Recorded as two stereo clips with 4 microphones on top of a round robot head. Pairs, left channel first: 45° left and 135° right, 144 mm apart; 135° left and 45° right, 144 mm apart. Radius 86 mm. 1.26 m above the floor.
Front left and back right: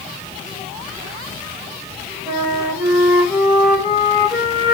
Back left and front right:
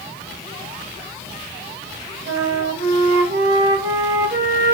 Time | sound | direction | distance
2.3 | a flute | 45° right | 3 m